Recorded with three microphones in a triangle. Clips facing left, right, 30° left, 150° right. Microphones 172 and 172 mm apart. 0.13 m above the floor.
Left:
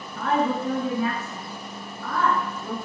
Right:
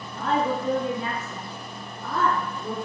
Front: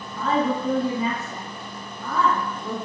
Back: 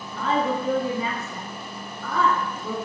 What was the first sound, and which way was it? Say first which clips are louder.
A woman speaking: left 1 dB, front 1 dB; 60° right.